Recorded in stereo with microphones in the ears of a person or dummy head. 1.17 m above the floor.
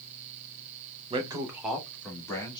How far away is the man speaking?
About 0.8 m.